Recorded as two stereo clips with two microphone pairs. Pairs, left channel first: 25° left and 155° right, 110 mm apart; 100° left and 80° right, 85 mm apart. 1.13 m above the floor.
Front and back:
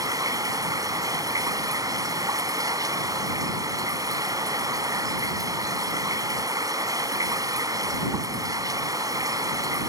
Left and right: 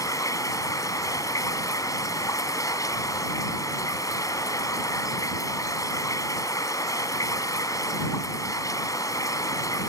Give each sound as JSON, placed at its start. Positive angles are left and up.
{"t": 0.0, "sound": "running water", "azimuth_deg": 145}